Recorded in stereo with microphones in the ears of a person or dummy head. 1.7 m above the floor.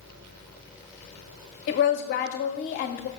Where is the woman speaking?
40° left (ahead or behind), 0.7 m.